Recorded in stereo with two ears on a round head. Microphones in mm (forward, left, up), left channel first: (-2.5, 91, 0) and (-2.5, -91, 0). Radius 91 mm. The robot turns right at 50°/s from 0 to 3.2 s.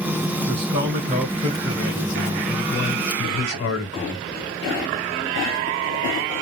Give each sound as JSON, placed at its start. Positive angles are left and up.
{"t": 0.5, "sound": "a man speaking", "azimuth_deg": -75, "distance_m": 1.0}